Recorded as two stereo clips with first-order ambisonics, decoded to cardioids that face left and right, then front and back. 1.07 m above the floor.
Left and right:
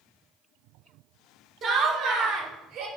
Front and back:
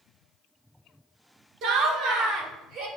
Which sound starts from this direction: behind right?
Laughter, at 1.6 s.